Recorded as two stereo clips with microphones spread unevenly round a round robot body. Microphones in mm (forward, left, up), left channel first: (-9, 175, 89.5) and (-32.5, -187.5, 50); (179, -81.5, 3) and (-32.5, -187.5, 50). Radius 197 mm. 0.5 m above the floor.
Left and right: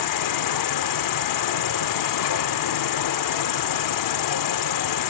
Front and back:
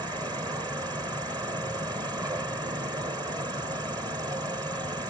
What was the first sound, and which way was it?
An insect, 125° left.